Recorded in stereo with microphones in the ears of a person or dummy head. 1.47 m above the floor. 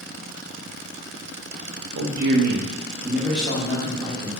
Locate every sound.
1.9 s a man speaking: 75° right (ahead or behind), 0.7 m; by 4.3 s 20° left (ahead or behind), 1.1 m